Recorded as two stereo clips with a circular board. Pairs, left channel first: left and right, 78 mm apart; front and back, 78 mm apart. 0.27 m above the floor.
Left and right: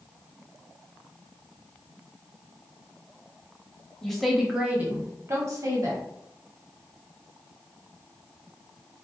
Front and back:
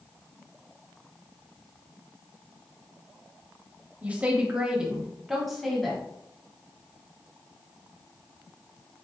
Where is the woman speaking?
160° left, 0.9 m; by 6.0 s 85° right, 1.4 m.